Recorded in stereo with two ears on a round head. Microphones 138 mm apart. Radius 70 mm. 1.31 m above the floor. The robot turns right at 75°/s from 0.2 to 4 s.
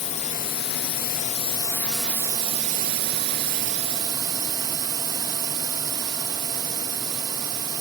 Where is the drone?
45° left; by 7.8 s 30° right.